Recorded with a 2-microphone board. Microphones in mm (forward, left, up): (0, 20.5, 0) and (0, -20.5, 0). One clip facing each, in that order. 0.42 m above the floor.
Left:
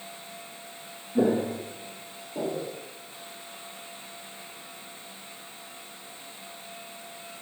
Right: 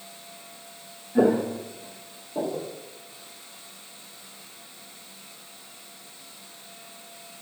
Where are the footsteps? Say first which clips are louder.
Right 3 dB; 30° right (ahead or behind), 1.4 m; by 2.7 s 25° right (ahead or behind), 3 m.